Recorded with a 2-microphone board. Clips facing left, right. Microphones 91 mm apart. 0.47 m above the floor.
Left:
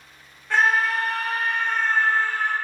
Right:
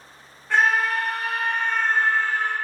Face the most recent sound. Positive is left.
turn(degrees=-55)  # may be behind; listen again after turning